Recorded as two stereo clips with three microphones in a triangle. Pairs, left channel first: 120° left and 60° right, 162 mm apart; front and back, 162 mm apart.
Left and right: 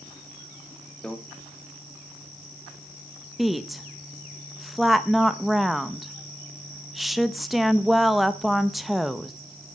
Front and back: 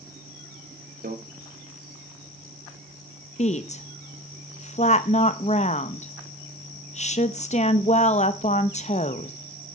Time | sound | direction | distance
1.0 | a microwave | 155° right | 1.6 m
3.4 | a woman speaking | 30° left | 0.8 m